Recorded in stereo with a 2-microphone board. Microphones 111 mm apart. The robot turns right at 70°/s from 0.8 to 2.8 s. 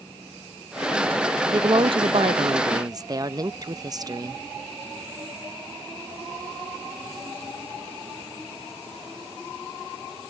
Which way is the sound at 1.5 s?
135° right.